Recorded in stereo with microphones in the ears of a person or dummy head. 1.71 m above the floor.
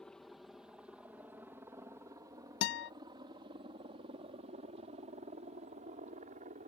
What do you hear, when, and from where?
0.0 s a helicopter: 5° left (ahead or behind); by 6.7 s 40° right (ahead or behind)
2.6 s a guitar: 60° left (ahead or behind)